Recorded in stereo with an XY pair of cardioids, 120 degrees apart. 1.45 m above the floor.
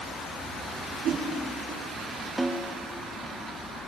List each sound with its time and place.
1.0 s a whoosh: 70° right, 3 m
2.4 s a snare drum: 10° right, 1.9 m